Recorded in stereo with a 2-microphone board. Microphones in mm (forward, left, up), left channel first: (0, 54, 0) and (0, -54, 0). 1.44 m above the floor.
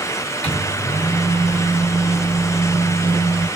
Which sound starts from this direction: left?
A microwave, at 0.4 s.